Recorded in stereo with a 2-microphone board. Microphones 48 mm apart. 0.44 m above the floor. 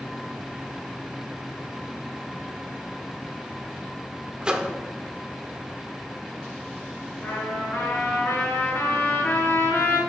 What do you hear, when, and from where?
4.4 s a microwave: 20° right (ahead or behind), 0.7 m
7.2 s a trumpet: 70° left (ahead or behind), 3.5 m